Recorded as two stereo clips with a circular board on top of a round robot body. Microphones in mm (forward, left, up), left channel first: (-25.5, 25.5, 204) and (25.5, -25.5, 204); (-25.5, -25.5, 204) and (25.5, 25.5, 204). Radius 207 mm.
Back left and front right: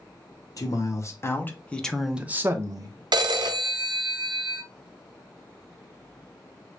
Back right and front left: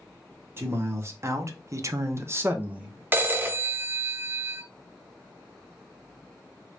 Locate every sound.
0.6 s a man speaking: 100° left, 1.4 m; by 3.0 s 30° right, 1.1 m
3.1 s a phone ringing: 20° right, 0.6 m